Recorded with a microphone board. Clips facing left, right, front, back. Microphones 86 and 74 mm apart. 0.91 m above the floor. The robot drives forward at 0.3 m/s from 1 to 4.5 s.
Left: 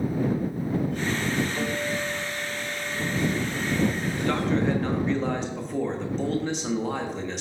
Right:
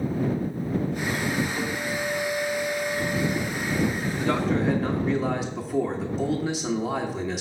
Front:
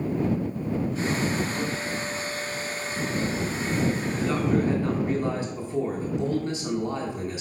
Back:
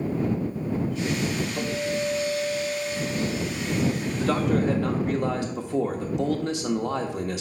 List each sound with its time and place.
1.6 s a guitar: 175° left, 2.0 m
4.2 s a man speaking: 175° right, 1.3 m